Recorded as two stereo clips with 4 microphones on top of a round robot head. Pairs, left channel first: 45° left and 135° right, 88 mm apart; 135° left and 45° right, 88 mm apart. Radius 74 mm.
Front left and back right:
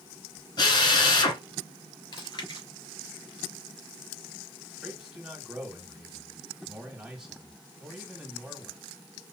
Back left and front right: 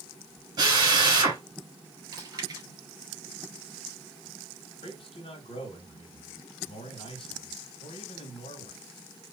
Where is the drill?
5° left, 3 m.